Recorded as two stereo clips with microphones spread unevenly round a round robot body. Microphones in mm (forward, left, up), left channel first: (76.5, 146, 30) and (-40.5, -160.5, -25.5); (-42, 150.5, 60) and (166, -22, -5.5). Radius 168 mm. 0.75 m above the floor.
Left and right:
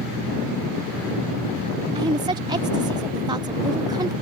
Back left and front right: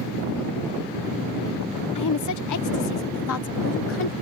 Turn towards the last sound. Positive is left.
turn(degrees=-175)